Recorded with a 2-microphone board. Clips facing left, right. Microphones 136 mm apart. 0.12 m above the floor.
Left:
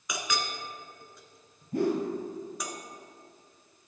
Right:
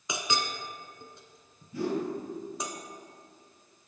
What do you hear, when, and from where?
0.1 s a clink: 25° right (ahead or behind), 1.0 m
1.7 s a whoosh: 55° left (ahead or behind), 2.5 m